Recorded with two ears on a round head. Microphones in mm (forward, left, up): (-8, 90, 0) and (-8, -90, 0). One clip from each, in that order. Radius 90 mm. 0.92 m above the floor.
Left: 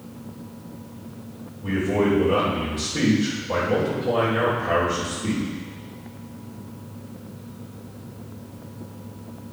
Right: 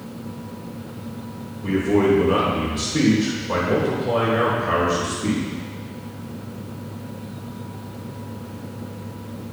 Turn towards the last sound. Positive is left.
turn(degrees=-60)  # may be behind; listen again after turning